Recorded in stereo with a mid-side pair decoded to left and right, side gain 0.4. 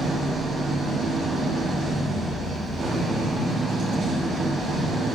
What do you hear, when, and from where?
0.0 s an engine running: 65° right, 3 m